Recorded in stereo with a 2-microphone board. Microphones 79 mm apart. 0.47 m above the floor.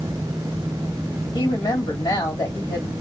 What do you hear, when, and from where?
1.3 s a woman speaking: 65° left (ahead or behind), 2.5 m